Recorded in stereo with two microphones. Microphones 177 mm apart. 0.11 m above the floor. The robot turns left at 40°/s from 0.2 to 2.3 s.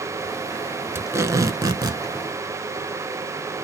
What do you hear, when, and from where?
0.9 s tape being pulled: 15° right (ahead or behind), 0.6 m; by 2.0 s 25° right (ahead or behind), 0.6 m